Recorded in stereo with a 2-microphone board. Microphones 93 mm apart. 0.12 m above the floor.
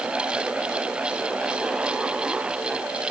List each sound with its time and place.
Only background noise.